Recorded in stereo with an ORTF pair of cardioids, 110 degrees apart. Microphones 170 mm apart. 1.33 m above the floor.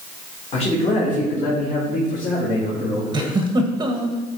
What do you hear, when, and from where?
0.5 s a man speaking: 35° left, 2.5 m; by 3.4 s 60° left, 4 m
3.1 s a giggle: 25° right, 1.2 m